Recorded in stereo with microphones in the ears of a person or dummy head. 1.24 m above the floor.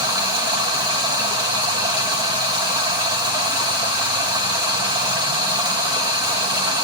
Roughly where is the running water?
Right.